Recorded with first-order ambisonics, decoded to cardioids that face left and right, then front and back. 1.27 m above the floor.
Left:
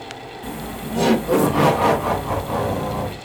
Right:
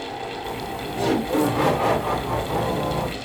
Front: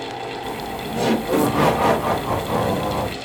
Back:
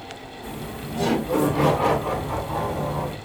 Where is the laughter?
75° left, 1.8 m; by 3.1 s 20° left, 1.9 m.